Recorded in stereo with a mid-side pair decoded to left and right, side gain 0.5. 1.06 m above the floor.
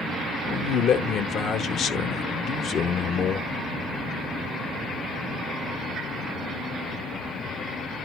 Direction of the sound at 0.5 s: 60° left.